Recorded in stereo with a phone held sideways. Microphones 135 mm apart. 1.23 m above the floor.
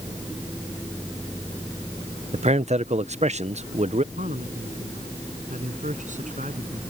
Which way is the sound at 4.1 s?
65° right (ahead or behind).